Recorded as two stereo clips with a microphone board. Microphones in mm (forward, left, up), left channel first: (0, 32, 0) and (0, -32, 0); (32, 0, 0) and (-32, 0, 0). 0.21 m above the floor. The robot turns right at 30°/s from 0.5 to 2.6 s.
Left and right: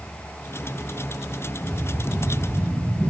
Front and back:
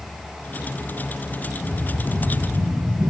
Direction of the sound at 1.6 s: 175° left.